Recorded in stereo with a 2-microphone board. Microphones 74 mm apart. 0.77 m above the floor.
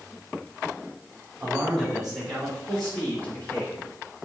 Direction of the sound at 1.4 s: 10° right (ahead or behind).